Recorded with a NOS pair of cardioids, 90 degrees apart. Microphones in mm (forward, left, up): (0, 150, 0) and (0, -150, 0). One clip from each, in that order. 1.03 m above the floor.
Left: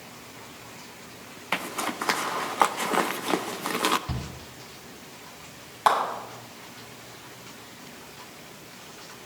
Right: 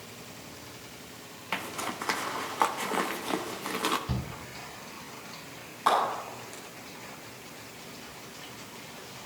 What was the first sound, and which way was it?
A zipper, 20° left.